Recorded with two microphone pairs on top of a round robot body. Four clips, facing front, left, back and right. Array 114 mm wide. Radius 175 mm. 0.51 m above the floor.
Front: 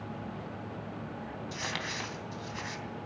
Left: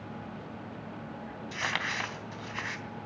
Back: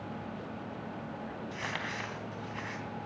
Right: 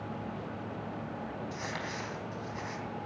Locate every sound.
1.5 s crumpling: 85° left, 3 m